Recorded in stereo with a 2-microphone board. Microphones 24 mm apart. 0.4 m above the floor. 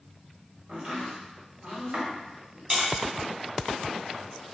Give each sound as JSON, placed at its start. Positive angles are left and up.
{"t": 0.7, "sound": "chopping", "side_deg": -60, "distance_m": 1.3}
{"t": 2.7, "sound": "tapping", "side_deg": -25, "distance_m": 1.4}